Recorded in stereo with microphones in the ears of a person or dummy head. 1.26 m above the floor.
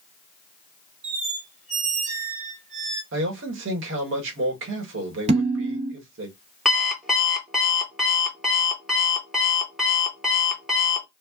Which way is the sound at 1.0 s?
45° right (ahead or behind).